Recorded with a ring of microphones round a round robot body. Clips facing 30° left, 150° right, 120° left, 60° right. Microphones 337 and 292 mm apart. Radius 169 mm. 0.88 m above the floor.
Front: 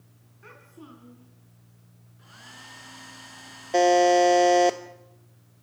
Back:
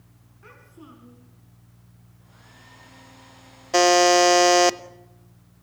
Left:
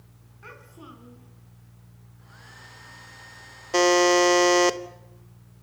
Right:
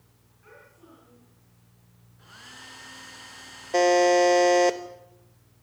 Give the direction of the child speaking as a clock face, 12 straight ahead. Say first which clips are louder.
Even, left 5 dB; 8 o'clock.